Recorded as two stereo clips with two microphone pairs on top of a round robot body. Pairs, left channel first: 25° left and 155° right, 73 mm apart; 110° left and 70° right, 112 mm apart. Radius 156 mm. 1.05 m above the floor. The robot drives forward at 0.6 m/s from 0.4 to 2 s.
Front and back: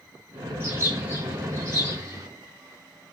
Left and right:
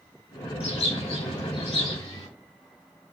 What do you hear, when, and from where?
0.6 s a bird: 140° left, 3 m; by 2.3 s 150° left, 3.5 m